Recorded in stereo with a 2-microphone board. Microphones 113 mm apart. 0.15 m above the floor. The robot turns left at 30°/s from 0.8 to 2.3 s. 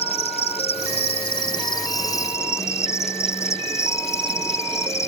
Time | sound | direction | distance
0.0 | an insect | 70° left | ?